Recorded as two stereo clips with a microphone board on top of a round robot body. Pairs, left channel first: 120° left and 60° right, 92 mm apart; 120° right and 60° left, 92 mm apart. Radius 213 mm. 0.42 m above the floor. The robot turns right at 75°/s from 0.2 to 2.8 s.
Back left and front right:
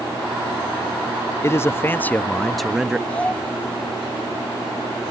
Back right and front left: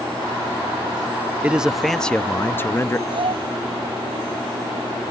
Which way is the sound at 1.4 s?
120° left.